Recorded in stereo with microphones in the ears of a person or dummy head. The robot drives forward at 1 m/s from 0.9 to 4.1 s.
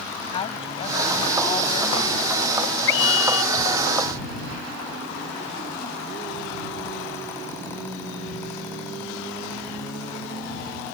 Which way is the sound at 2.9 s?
90° left.